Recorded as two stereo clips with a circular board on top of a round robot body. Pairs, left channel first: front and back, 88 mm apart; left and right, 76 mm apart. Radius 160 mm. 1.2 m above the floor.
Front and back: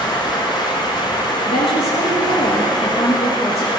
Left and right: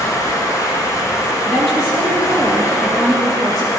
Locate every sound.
0.0 s running water: 40° left, 1.5 m
1.4 s a woman speaking: straight ahead, 1.6 m